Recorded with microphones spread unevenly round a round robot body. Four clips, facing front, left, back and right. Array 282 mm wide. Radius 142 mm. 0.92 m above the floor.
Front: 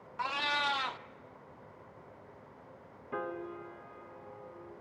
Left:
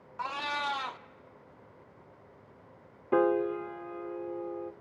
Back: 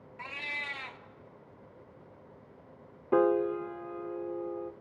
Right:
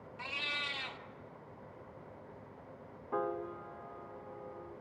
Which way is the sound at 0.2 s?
45° left.